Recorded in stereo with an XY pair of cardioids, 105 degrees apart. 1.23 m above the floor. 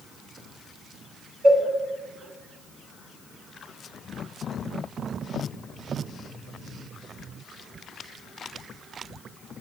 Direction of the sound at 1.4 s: 55° right.